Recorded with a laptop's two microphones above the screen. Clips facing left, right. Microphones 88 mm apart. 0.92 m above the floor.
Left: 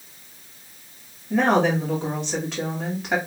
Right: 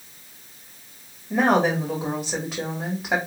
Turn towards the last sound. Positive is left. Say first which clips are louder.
# even
turn(degrees=-10)  # may be behind; listen again after turning